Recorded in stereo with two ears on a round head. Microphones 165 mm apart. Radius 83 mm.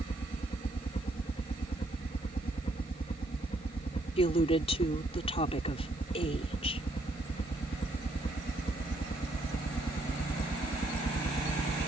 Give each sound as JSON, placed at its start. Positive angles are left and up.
{"t": 0.0, "sound": "a helicopter", "side_deg": 30}
{"t": 4.2, "sound": "a woman speaking", "side_deg": 35}